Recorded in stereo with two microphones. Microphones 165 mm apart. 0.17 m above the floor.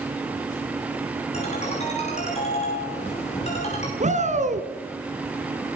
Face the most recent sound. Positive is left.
turn(degrees=-45)  # may be behind; listen again after turning